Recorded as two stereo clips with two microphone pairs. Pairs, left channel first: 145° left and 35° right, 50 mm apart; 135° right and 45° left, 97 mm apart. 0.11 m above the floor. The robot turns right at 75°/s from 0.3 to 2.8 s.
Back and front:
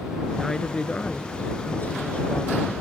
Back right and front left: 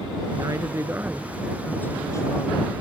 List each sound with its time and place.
0.3 s a woman speaking: 55° left; by 2.7 s 125° right